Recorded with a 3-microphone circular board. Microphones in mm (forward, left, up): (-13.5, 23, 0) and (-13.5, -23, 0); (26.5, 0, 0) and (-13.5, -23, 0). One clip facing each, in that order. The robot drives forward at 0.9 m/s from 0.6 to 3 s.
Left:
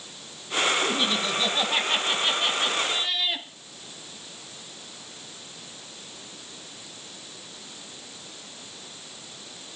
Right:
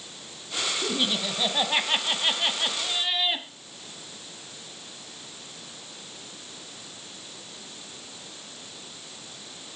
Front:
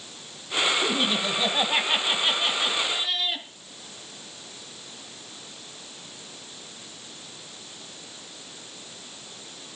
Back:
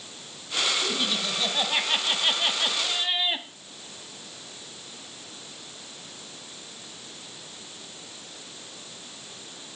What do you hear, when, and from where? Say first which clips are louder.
0.8 s laughter: left 2 dB, front 3 dB; 15° right, 1.9 m; by 3.5 s 155° right, 1.6 m